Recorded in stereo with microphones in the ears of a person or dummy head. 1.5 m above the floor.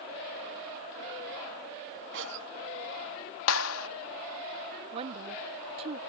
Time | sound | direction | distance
2.1 | a cough | 70° right (ahead or behind) | ?
3.5 | a clap | 85° left | ?
4.9 | a woman speaking | 35° right (ahead or behind) | ?